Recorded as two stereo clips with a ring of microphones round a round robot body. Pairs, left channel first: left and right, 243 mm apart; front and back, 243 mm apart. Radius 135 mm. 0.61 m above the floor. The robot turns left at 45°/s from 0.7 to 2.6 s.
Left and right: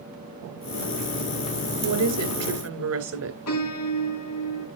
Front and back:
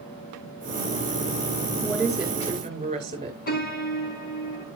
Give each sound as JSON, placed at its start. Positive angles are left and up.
{"t": 1.8, "sound": "a woman speaking", "azimuth_deg": -80, "distance_m": 3.5}
{"t": 3.5, "sound": "a piano", "azimuth_deg": 50, "distance_m": 3.0}